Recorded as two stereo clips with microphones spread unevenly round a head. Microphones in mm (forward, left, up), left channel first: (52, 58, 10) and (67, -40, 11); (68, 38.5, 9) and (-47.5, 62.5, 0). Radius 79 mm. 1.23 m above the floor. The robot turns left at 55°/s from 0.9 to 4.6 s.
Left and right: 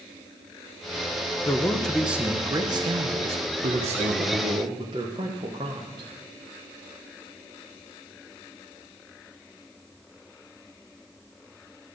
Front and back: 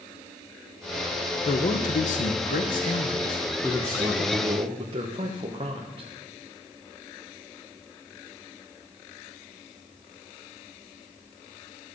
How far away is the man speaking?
About 0.9 m.